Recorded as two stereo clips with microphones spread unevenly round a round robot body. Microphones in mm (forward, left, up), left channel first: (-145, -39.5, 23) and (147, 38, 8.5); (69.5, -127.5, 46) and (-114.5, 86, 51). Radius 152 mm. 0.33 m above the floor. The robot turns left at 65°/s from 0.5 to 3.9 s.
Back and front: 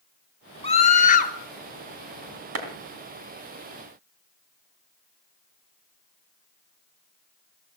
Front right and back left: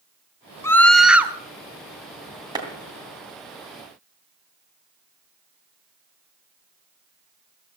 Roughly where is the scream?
Behind right.